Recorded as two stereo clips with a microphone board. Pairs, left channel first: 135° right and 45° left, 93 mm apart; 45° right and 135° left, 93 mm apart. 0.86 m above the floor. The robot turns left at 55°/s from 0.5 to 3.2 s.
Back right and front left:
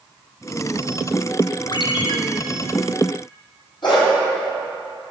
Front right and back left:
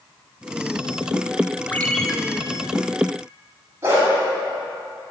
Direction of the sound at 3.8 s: 165° right.